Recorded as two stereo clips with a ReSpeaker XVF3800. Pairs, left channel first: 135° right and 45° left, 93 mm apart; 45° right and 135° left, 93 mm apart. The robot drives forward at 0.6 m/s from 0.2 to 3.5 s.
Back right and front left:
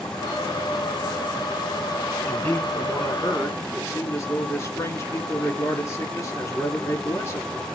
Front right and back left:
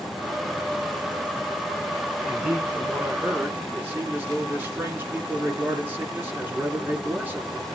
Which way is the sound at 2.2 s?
155° right.